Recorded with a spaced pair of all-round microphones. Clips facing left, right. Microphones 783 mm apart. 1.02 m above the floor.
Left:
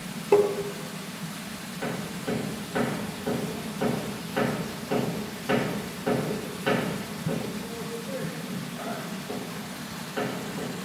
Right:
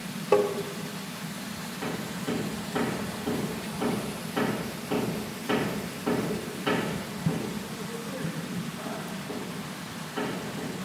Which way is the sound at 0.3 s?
15° right (ahead or behind).